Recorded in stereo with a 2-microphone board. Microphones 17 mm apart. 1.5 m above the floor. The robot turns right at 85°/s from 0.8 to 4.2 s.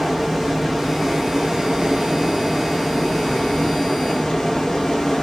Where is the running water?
5° right (ahead or behind), 0.8 m; by 5.2 s 20° left (ahead or behind), 0.8 m.